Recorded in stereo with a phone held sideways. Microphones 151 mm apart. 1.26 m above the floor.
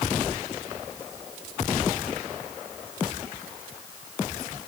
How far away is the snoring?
No snoring in this recording.